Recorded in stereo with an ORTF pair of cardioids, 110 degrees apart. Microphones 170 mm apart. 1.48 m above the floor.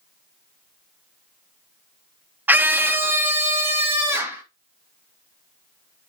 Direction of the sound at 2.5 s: 10° right.